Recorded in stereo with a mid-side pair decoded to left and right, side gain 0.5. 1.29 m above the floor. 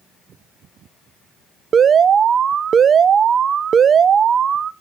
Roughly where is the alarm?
Ahead right.